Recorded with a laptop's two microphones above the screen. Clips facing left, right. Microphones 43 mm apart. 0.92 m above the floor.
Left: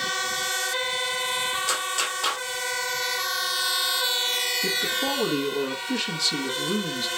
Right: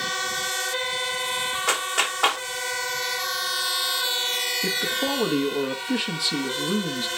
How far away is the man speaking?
About 1.1 m.